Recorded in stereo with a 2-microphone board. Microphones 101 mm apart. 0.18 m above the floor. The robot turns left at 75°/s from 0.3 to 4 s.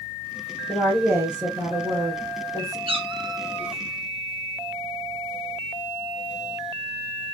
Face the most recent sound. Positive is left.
turn(degrees=165)